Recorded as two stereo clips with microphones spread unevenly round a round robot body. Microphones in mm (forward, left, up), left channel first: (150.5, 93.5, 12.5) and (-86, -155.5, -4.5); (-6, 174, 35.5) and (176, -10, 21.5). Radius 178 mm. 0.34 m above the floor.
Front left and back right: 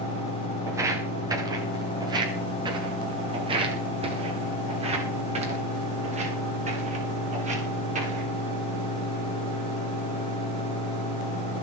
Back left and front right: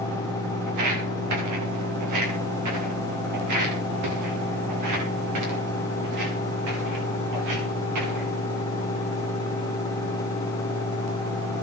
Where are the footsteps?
50° right, 6 m; by 8.3 s 65° right, 11 m.